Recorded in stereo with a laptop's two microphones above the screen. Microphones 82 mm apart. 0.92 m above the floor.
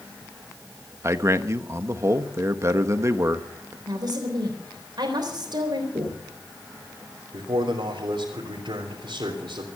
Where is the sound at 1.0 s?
35° right (ahead or behind), 1.2 m.